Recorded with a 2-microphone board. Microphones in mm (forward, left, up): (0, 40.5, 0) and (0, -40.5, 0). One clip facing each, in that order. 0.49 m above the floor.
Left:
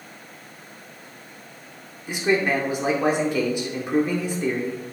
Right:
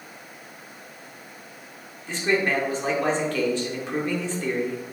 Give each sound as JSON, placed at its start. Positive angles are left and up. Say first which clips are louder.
{"t": 2.1, "sound": "a man speaking", "louder": "left 2 dB", "side_deg": 15, "distance_m": 1.4}